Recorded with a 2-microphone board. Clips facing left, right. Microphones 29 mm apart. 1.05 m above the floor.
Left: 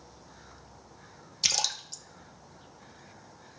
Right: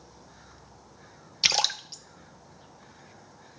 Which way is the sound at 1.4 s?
35° right (ahead or behind).